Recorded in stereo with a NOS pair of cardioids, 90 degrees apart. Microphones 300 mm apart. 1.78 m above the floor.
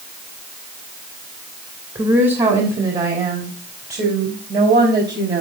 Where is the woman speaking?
20° right, 2.5 m; by 5.4 s 40° right, 4 m.